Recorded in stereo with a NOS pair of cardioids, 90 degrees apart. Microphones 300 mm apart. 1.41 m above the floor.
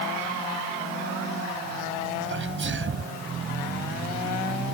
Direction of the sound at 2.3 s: 40° right.